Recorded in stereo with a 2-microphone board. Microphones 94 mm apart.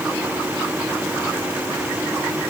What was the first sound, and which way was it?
Only background noise.